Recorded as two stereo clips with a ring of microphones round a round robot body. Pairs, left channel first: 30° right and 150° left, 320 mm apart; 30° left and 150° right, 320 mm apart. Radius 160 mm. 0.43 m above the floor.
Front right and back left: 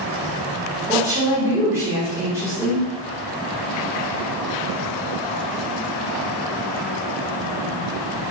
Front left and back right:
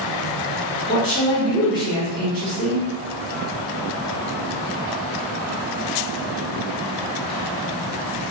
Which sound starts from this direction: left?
A woman speaking, at 0.9 s.